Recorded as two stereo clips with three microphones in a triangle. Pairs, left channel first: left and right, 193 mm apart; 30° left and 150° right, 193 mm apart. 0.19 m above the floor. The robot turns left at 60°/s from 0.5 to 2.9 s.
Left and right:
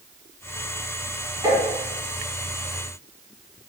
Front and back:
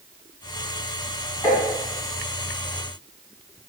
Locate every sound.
1.4 s tapping: 35° right, 1.8 m; by 1.6 s 45° right, 1.8 m